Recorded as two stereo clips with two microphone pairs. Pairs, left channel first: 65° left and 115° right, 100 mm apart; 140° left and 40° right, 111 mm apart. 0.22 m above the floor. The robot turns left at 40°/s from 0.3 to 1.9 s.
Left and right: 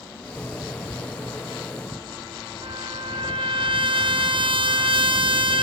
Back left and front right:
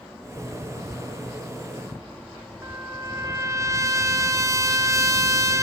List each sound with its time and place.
2.6 s a trumpet: 100° right, 1.7 m